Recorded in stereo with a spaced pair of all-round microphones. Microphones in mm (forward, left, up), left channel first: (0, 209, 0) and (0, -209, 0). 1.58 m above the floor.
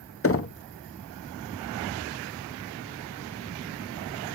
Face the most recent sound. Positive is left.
turn(degrees=35)  # may be behind; listen again after turning